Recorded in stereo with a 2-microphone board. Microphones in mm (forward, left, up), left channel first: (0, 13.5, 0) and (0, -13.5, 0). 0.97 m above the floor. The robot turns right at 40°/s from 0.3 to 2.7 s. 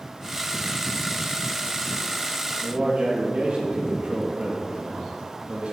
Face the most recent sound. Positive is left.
turn(degrees=-55)  # may be behind; listen again after turning